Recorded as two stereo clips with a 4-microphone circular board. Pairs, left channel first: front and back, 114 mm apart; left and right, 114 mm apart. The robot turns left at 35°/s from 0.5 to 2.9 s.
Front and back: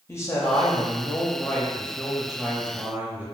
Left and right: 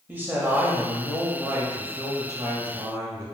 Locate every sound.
0.1 s a man speaking: 35° right, 1.0 m; by 3.2 s 115° right, 1.0 m